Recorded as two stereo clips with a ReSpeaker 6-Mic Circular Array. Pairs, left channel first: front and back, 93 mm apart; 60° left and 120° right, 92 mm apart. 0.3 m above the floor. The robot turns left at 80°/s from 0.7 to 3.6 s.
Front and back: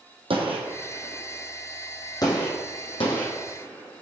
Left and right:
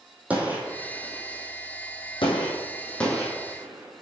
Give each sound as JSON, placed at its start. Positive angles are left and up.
{"t": 0.3, "sound": "a gunshot", "azimuth_deg": 165, "distance_m": 2.0}